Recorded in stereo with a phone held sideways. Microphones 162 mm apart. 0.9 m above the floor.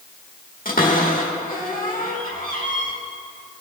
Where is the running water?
I don't hear running water.